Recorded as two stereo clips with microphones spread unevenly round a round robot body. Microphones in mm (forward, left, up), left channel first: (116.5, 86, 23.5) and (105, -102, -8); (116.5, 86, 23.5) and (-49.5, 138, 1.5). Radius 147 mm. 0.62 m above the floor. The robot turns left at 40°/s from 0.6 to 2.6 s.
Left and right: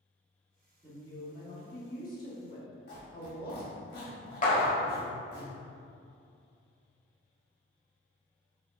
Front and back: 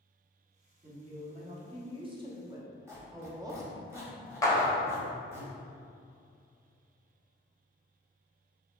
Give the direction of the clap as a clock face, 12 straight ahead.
10 o'clock.